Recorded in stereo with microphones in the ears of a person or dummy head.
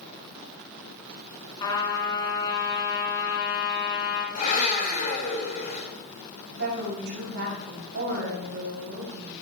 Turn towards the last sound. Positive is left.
turn(degrees=-60)  # may be behind; listen again after turning